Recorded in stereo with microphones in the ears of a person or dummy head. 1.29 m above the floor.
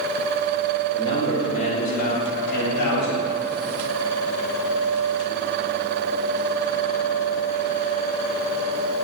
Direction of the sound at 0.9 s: 30° left (ahead or behind).